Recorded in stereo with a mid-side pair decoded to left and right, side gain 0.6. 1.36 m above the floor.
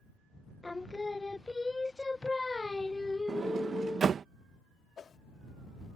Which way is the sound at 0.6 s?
10° left.